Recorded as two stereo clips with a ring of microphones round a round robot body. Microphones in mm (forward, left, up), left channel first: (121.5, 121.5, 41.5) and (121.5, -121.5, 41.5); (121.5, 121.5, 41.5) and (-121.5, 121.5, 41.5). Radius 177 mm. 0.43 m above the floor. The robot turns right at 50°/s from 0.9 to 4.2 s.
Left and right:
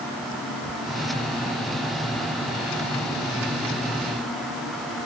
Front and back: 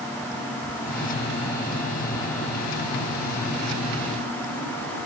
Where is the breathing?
No breathing in this recording.